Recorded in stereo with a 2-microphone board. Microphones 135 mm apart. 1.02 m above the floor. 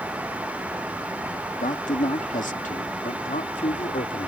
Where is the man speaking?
65° left (ahead or behind); by 4.3 s 70° left (ahead or behind).